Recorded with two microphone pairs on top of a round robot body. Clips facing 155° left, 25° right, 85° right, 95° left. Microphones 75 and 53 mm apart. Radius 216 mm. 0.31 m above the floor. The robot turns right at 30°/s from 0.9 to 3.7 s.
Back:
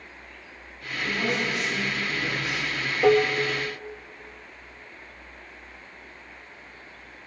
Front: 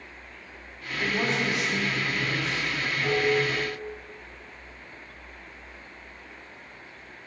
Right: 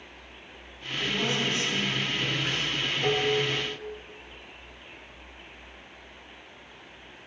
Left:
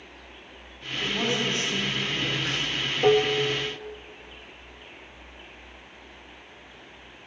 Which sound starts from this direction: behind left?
Dishes clattering, at 3.0 s.